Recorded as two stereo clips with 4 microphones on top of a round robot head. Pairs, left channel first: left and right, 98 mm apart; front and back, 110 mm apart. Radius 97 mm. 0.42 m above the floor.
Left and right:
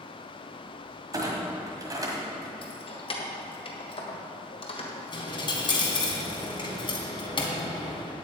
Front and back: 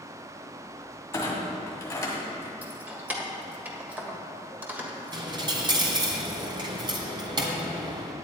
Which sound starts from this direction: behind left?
A dropped coin, at 5.1 s.